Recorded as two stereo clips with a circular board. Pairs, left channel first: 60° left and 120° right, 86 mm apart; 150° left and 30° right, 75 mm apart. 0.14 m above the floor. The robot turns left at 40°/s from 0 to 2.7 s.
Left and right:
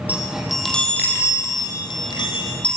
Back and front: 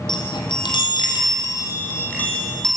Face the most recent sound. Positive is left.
turn(degrees=65)